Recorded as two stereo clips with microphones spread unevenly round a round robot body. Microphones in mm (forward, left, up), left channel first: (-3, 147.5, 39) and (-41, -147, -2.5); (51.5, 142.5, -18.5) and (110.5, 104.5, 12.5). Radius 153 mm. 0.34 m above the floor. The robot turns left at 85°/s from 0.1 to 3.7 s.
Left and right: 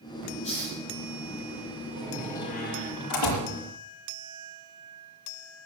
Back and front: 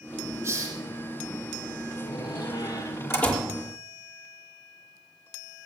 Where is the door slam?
165° right, 6.5 m; by 3.5 s 65° left, 6.5 m.